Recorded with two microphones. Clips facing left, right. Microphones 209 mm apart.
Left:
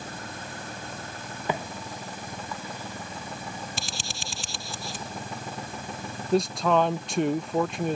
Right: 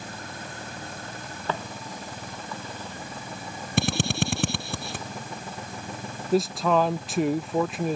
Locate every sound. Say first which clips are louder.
1.5 s footsteps: left 1 dB; 15° left (ahead or behind); by 3.7 s 10° left (ahead or behind)
3.8 s a drill: right 13 dB; 65° right (ahead or behind)
6.3 s a man speaking: even; centre (ahead or behind)